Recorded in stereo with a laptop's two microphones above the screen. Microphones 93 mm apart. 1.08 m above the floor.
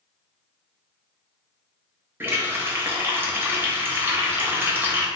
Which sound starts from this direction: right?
A running tap, at 2.2 s.